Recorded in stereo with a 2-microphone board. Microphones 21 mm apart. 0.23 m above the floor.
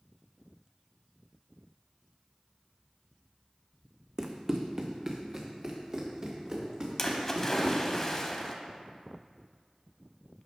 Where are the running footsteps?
30° right (ahead or behind), 0.7 m; by 8.0 s 35° right (ahead or behind), 2.5 m.